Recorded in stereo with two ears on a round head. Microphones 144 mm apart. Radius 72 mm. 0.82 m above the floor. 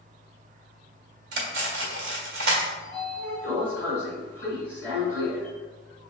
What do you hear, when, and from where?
1.3 s cutlery clinking: 75° right (ahead or behind), 1.3 m
2.8 s a sliding door: 15° left (ahead or behind), 1.7 m